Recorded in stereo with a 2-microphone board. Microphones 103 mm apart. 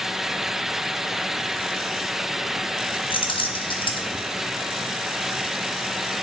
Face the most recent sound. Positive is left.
turn(degrees=60)  # may be behind; listen again after turning